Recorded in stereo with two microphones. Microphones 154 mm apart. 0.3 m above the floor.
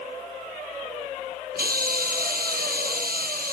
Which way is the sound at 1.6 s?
75° right (ahead or behind).